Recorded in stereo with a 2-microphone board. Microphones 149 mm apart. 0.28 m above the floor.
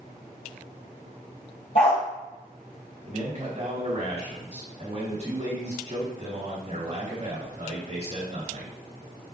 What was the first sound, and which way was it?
A dog barking, 50° left (ahead or behind).